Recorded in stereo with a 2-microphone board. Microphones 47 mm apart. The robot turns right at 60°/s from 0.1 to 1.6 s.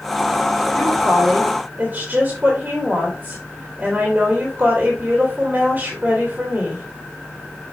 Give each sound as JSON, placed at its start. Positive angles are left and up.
{"t": 0.7, "sound": "a woman speaking", "azimuth_deg": 160, "distance_m": 2.5}